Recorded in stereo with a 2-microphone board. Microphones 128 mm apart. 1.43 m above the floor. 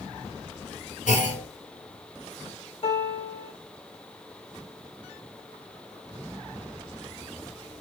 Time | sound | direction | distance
1.1 | a clunk | 70° left (ahead or behind) | 1.0 m
2.8 | a piano | 50° left (ahead or behind) | 1.1 m